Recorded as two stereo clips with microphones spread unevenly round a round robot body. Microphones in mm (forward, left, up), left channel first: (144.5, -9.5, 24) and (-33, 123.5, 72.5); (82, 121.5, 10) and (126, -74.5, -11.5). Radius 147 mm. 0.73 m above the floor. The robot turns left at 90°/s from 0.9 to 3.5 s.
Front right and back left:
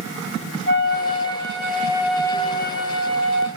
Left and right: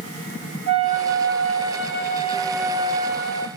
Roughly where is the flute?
Behind.